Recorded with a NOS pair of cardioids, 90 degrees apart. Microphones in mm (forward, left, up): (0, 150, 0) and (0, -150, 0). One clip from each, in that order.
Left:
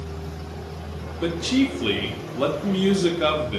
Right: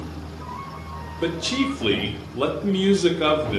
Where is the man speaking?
10° right, 0.7 m.